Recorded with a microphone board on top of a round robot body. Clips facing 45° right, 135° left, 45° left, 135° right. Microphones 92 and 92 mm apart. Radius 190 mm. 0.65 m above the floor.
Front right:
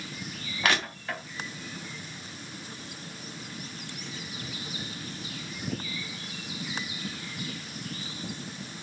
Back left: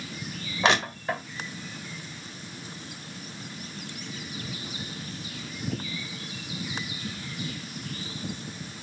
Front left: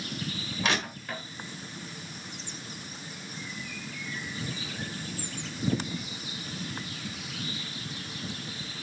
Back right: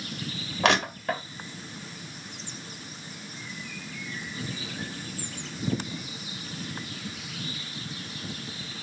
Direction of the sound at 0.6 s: 160° right.